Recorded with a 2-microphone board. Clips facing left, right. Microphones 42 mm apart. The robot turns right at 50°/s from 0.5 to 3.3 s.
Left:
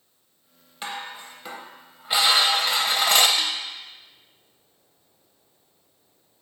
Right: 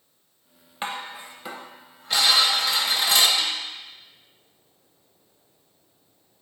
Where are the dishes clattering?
40° right, 0.8 m; by 3.3 s 85° left, 0.8 m.